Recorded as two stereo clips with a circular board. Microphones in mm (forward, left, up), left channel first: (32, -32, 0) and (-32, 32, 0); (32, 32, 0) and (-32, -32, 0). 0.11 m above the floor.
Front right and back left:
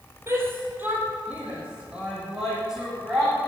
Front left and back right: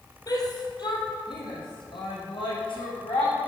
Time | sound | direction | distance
0.3 | a shout | 80° left | 3 m